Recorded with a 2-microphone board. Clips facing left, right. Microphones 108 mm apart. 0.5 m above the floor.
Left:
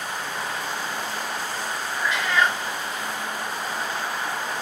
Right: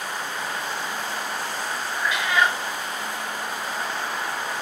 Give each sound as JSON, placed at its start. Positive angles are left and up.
{"t": 2.0, "sound": "a cat meowing", "side_deg": -10, "distance_m": 2.5}